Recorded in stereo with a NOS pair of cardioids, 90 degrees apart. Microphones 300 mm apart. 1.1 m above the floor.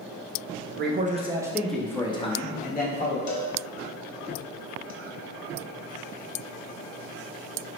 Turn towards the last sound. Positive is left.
turn(degrees=65)